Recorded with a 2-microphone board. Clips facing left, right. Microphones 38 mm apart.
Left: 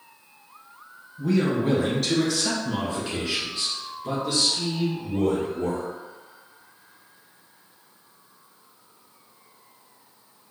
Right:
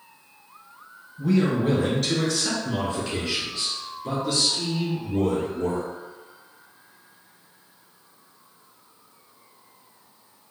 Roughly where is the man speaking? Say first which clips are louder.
Right 1 dB; centre.